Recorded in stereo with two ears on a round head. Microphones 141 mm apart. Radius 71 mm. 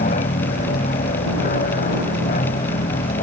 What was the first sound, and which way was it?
An aircraft, 50° left (ahead or behind).